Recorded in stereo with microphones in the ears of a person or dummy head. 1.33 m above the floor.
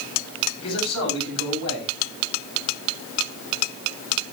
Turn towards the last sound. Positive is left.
turn(degrees=85)